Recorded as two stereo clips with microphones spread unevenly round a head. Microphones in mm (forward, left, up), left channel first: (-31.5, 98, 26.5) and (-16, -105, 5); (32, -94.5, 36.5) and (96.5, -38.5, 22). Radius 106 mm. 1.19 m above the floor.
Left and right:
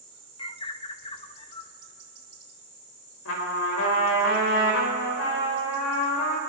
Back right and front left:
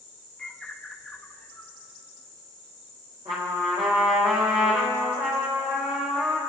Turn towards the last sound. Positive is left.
turn(degrees=105)